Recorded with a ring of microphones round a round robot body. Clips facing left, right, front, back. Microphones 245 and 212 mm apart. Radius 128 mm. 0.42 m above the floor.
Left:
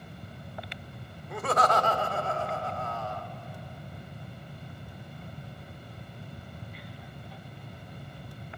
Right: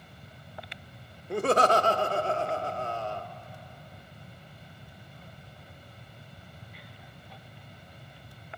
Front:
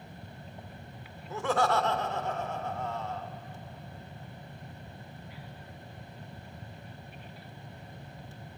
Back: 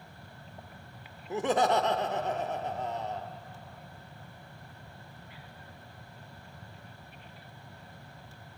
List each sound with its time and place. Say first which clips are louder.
1.3 s laughter: right 4 dB, back 2 dB; 120° right, 1.2 m